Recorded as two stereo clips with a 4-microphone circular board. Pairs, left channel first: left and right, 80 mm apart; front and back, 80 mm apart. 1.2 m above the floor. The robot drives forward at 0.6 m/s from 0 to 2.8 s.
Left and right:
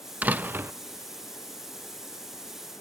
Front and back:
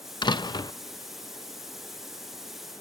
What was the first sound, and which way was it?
A door slam, 20° right.